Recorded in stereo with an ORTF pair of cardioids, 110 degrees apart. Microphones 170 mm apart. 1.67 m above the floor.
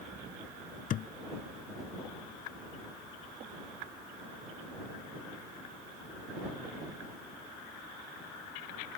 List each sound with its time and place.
0.9 s a thud: 55° left